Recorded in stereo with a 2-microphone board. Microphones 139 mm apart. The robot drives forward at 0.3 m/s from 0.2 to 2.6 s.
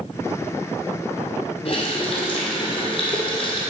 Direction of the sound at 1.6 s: 50° left (ahead or behind).